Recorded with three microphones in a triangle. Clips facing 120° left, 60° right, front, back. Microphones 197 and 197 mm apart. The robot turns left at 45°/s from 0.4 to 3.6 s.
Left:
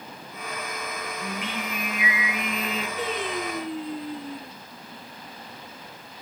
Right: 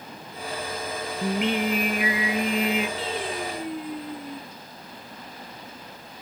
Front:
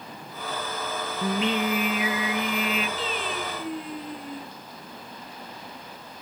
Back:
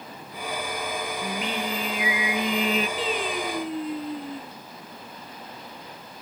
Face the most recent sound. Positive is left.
turn(degrees=160)